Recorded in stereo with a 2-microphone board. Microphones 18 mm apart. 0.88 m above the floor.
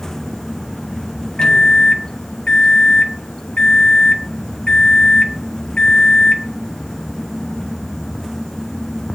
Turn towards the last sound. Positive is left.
turn(degrees=55)  # may be behind; listen again after turning